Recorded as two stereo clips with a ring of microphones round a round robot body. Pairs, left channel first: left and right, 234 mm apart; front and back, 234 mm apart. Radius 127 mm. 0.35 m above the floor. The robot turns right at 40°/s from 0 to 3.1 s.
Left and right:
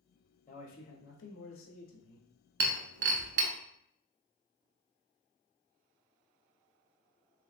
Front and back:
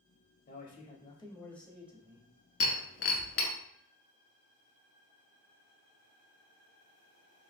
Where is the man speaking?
40° left, 1.3 m; by 2.3 s 110° left, 1.3 m.